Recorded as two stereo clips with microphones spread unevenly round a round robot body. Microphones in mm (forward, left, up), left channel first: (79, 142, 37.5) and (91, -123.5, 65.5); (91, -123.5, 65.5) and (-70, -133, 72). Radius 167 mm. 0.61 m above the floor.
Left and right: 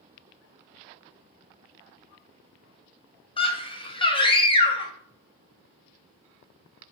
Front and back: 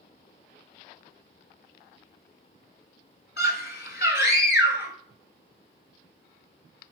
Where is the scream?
25° left, 2.5 m.